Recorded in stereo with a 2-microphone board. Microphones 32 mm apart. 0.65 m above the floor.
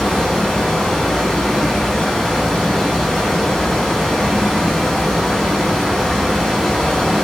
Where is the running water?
5° left (ahead or behind), 4.5 m.